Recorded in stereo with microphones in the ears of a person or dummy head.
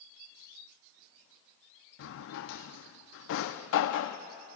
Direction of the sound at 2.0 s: 65° left (ahead or behind).